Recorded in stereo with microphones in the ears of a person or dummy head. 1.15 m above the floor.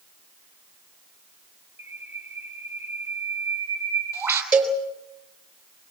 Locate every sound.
1.8 s a bird: 10° right (ahead or behind), 3.5 m
4.5 s a cowbell: 5° right (ahead or behind), 4.5 m